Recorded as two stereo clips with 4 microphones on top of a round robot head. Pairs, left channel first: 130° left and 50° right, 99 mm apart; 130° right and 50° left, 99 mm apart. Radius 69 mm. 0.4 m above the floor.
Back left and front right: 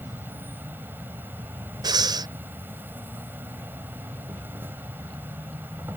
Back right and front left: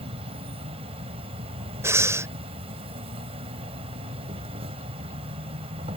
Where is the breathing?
10° right.